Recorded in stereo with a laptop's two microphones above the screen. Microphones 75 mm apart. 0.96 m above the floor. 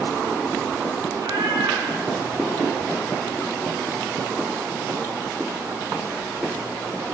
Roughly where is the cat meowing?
Right.